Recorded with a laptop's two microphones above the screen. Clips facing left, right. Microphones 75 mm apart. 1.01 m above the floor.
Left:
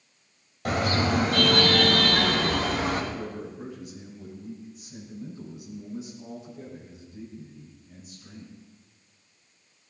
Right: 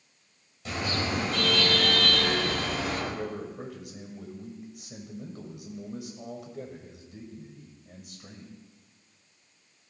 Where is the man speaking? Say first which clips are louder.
Right 1 dB; 80° right, 5 m.